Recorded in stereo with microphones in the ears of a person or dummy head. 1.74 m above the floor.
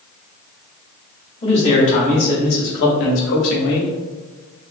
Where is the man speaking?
35° left (ahead or behind), 1.3 m; by 3.9 s 85° left, 1.1 m.